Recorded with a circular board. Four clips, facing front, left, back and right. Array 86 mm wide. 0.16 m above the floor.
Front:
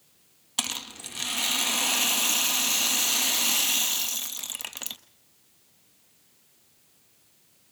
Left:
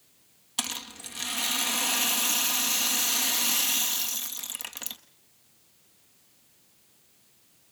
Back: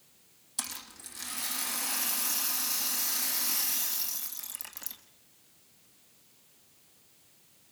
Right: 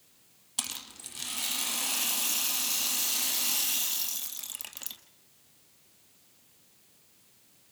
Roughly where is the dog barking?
No dog barking in this recording.